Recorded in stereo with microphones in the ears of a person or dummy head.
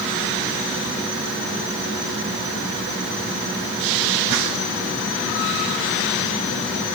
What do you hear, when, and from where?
Only background noise.